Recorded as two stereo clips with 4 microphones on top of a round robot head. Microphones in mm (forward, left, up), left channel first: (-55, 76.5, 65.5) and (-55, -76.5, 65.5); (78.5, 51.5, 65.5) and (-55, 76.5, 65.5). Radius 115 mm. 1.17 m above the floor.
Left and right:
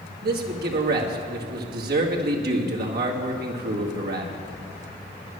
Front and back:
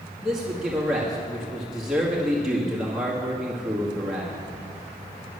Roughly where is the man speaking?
Right.